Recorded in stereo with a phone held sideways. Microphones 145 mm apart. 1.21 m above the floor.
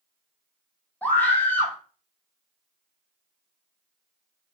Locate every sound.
1.0 s a scream: 10° left (ahead or behind), 1.0 m